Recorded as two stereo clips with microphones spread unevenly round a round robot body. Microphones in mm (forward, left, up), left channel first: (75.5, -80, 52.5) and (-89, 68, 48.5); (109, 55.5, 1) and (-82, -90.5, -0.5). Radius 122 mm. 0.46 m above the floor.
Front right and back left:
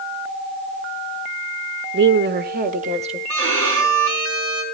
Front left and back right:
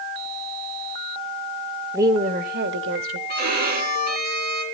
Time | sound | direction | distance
1.9 | a woman speaking | 140° left | 1.2 m
3.3 | a violin | 165° left | 4 m